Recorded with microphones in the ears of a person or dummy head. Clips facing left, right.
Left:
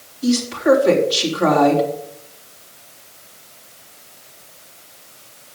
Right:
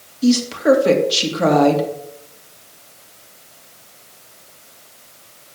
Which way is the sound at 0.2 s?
60° right (ahead or behind).